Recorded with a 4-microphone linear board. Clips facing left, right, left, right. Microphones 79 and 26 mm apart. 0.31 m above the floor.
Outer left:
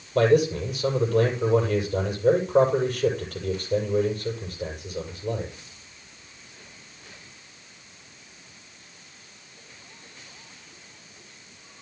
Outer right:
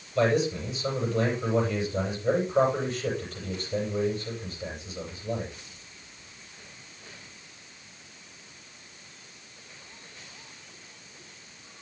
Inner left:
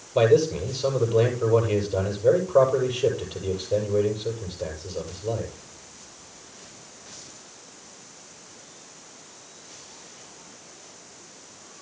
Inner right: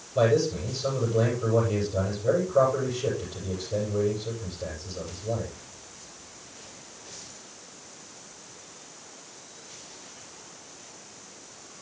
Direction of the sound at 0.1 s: 60° left (ahead or behind).